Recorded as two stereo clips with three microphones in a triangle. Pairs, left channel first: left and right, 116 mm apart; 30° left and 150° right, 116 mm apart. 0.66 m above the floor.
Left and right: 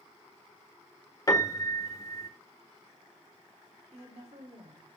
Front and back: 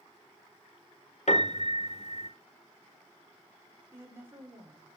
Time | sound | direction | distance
1.3 | a piano | 30° left | 1.7 m
3.9 | a woman speaking | 80° right | 2.5 m